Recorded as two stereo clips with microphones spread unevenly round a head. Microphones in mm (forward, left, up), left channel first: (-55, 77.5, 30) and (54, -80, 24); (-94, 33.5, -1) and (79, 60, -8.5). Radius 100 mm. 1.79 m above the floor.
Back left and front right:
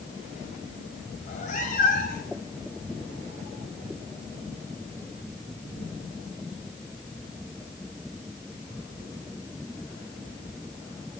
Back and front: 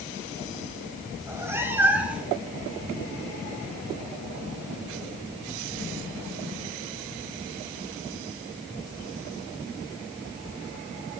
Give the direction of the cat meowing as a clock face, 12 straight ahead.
9 o'clock.